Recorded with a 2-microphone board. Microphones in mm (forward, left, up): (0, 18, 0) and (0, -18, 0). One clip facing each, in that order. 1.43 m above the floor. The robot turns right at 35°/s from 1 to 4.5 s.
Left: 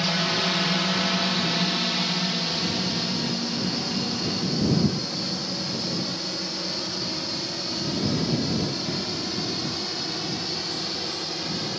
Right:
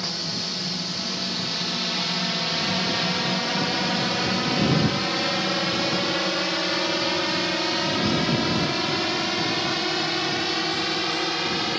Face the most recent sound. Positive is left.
turn(degrees=-45)  # may be behind; listen again after turning